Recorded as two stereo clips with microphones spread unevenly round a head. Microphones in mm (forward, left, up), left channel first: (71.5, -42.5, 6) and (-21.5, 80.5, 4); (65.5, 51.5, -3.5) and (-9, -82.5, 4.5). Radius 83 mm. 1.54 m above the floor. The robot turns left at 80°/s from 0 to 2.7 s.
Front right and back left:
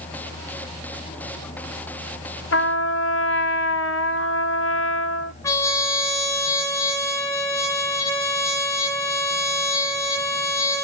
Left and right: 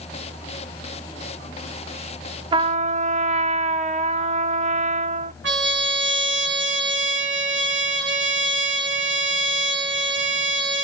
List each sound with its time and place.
2.5 s a trumpet: 60° right, 0.8 m; by 5.3 s 75° right, 0.8 m
5.4 s a trumpet: 125° right, 1.8 m